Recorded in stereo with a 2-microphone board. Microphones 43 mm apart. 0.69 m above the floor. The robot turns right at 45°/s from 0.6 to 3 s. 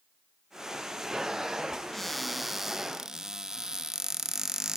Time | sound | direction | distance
1.9 | a cupboard door | 5° left (ahead or behind) | 0.7 m